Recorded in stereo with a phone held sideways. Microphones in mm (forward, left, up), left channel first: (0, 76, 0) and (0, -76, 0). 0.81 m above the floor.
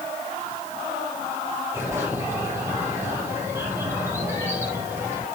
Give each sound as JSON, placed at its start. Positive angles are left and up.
{"t": 1.7, "sound": "a bird", "side_deg": -15, "distance_m": 7.0}